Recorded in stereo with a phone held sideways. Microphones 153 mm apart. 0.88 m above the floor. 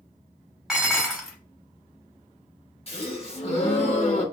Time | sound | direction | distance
0.7 | dishes clattering | 5° right (ahead or behind) | 1.1 m
2.9 | a gasp | 40° left (ahead or behind) | 1.0 m